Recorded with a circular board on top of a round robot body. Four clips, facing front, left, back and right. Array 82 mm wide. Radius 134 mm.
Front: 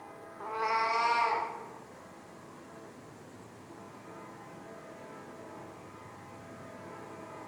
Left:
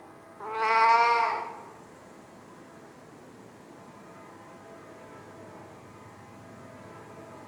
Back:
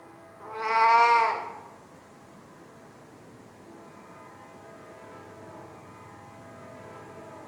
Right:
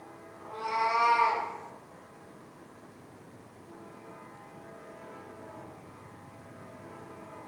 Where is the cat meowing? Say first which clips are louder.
Left 7 dB, back 7 dB; 65° left, 0.7 m; by 1.5 s 175° right, 1.2 m.